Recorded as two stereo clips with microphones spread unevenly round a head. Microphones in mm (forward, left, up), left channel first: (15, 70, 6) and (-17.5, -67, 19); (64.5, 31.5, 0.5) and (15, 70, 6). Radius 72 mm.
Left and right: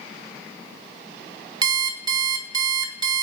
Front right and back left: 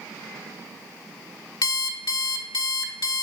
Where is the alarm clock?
55° right, 0.7 m.